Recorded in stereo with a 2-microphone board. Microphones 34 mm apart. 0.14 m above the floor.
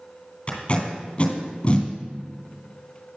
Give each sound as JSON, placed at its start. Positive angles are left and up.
{"t": 0.5, "sound": "tape being pulled", "side_deg": 35, "distance_m": 2.5}